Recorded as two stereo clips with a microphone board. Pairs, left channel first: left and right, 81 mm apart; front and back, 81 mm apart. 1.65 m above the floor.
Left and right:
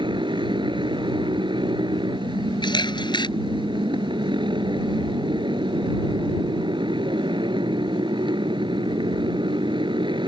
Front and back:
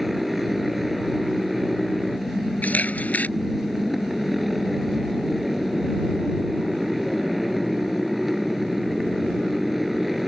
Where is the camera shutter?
70° left.